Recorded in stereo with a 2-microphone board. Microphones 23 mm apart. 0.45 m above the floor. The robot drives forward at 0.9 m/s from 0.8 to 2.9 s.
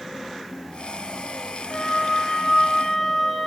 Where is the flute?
35° left (ahead or behind), 3 m; by 3.5 s 25° left (ahead or behind), 4 m.